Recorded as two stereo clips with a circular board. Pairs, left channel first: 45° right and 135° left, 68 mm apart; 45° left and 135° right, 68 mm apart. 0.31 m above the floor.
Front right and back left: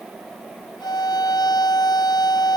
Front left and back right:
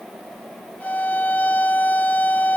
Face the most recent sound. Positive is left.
turn(degrees=-25)